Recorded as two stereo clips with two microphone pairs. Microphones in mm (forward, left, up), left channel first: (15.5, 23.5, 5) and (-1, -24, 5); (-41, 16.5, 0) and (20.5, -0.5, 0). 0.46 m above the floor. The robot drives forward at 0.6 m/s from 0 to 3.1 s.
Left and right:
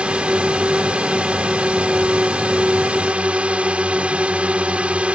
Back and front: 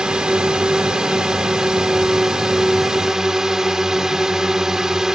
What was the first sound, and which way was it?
A drone, 75° right.